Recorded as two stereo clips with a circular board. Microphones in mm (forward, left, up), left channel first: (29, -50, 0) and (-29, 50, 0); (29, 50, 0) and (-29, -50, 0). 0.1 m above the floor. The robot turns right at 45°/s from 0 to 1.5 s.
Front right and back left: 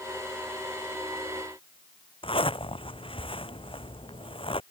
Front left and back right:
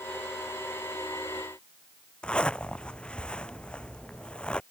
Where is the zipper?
20° right.